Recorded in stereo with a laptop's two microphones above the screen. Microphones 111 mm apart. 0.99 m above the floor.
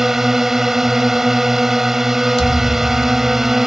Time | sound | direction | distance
0.0 | a drone | 5° right (ahead or behind) | ?
2.4 | a thud | 75° left (ahead or behind) | ?